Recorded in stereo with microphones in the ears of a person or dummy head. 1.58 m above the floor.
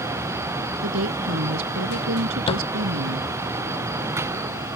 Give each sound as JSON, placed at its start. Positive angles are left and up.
{"t": 0.8, "sound": "a woman speaking", "side_deg": -90}
{"t": 2.5, "sound": "a thud", "side_deg": 35}